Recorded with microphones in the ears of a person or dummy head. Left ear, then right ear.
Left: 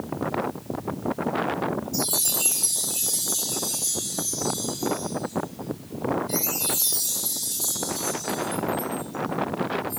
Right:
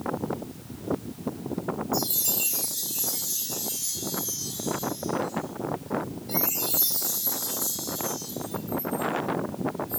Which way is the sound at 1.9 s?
10° right (ahead or behind).